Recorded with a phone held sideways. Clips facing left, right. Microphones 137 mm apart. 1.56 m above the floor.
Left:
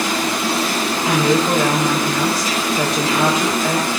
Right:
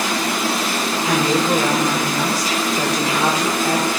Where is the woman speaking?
80° left, 8.5 m.